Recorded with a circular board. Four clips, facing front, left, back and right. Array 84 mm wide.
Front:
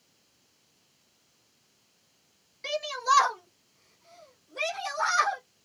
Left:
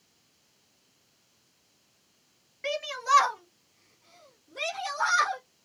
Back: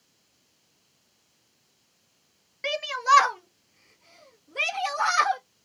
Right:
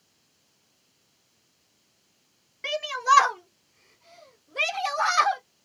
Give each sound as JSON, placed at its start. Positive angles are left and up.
{"t": 2.6, "sound": "a shout", "azimuth_deg": -175, "distance_m": 1.6}